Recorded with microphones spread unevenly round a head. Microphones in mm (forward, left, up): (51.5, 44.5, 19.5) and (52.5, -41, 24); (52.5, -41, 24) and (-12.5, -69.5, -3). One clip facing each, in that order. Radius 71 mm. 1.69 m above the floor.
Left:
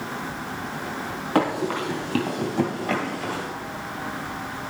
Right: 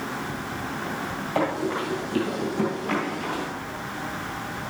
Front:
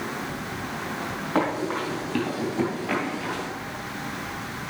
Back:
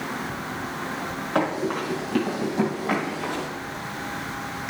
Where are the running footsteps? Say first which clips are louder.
Left 3 dB, back 1 dB; 90° left, 3 m; by 3.5 s 135° left, 1.8 m.